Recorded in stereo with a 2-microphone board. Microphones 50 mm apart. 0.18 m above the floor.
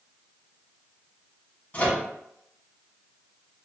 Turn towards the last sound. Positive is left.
turn(degrees=30)  # may be behind; listen again after turning